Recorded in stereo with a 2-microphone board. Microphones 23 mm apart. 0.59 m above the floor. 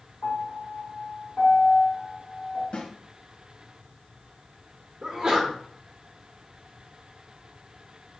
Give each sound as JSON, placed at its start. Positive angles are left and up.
{"t": 0.2, "sound": "a piano", "side_deg": 65, "distance_m": 2.5}
{"t": 2.7, "sound": "a snare drum", "side_deg": 50, "distance_m": 1.4}
{"t": 5.0, "sound": "a sneeze", "side_deg": -35, "distance_m": 1.5}